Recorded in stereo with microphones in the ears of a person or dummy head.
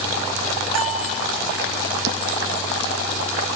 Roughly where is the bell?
Right.